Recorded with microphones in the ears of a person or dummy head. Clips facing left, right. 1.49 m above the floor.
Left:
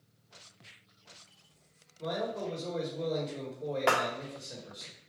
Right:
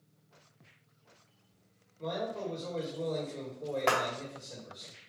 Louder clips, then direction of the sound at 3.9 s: Left 1 dB; 10° left (ahead or behind).